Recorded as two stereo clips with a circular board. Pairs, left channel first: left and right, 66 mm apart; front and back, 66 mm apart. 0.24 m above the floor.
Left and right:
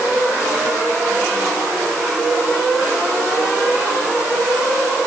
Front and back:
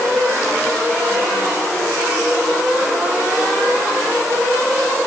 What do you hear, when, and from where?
Only background noise.